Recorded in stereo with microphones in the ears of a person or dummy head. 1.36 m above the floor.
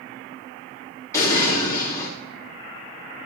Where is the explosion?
20° left (ahead or behind), 3 m.